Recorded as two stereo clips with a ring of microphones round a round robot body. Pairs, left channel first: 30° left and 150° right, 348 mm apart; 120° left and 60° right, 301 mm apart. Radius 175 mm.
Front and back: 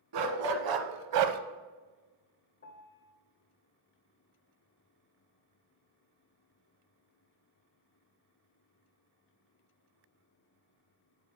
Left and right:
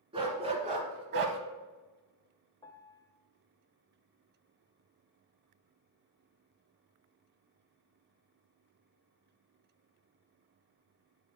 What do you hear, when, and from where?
0.1 s a dog barking: 135° right, 1.4 m; by 1.4 s 110° right, 0.6 m
2.6 s a piano: 55° left, 0.9 m